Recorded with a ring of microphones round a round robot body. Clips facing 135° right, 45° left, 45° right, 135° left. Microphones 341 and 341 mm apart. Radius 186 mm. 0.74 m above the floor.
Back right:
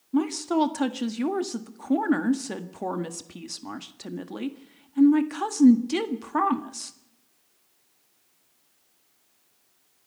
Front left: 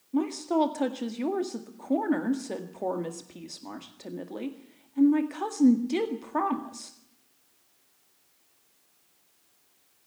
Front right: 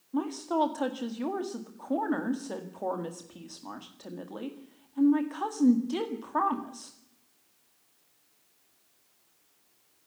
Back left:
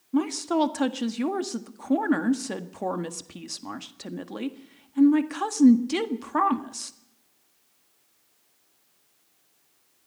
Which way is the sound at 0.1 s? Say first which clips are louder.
Back right 2 dB, back left 6 dB; 170° left.